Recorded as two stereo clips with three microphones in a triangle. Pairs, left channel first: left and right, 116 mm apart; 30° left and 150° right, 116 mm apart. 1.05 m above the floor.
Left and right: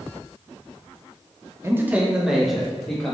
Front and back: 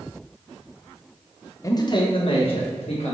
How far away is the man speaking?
About 0.5 m.